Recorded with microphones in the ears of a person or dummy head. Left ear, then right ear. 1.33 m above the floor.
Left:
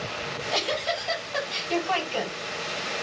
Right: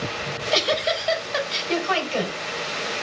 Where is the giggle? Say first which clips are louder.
Right 6 dB; 55° right (ahead or behind), 3 m.